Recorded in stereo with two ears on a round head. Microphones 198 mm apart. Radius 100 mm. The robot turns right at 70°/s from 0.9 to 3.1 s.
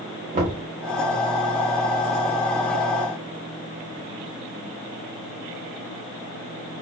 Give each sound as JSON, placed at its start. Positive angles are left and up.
{"t": 0.3, "sound": "knocking", "side_deg": -35, "distance_m": 2.5}